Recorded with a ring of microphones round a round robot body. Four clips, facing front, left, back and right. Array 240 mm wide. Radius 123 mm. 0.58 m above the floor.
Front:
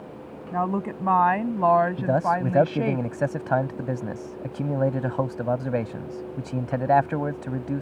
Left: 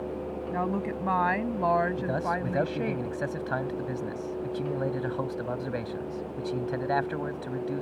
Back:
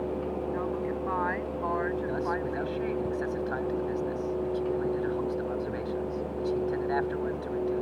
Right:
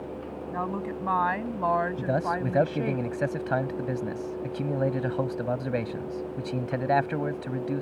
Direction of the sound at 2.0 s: 15° right.